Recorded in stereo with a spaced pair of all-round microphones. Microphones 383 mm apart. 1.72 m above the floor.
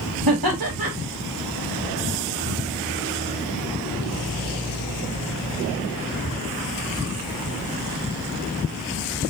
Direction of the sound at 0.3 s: 65° right (ahead or behind).